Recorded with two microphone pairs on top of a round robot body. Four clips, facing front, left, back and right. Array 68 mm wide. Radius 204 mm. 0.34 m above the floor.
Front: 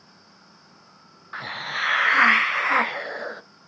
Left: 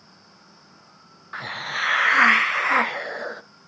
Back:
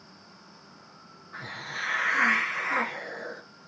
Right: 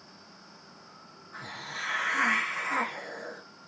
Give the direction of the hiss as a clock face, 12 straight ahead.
10 o'clock.